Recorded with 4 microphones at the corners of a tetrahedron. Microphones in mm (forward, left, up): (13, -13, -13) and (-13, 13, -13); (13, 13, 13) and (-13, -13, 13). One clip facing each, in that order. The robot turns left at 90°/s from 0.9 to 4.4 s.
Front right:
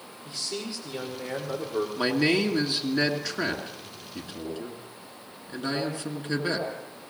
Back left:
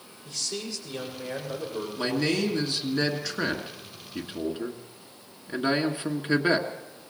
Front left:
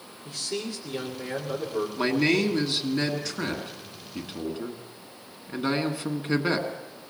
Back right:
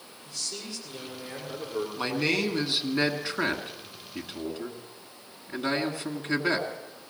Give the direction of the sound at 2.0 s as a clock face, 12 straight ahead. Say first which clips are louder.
Front right 2 dB, front left 4 dB; 1 o'clock.